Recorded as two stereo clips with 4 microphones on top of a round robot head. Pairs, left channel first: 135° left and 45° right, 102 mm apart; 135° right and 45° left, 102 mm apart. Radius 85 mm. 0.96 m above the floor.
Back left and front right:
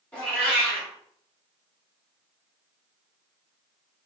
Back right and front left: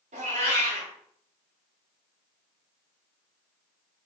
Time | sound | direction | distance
0.1 | a cat meowing | 55° left | 1.6 m